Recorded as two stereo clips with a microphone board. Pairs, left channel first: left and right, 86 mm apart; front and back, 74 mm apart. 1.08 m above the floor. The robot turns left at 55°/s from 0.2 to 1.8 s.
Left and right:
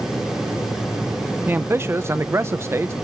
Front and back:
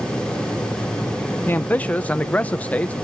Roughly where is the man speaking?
Ahead right.